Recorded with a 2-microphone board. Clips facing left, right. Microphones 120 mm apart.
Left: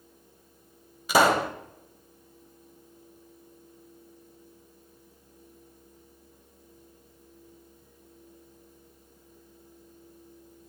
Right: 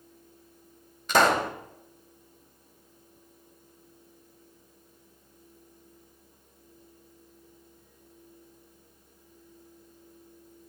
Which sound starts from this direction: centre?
A pop, at 1.1 s.